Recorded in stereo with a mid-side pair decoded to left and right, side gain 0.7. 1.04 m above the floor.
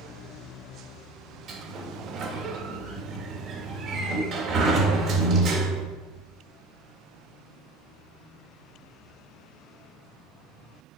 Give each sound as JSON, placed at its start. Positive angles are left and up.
{"t": 1.5, "sound": "a sliding door", "azimuth_deg": -45, "distance_m": 1.7}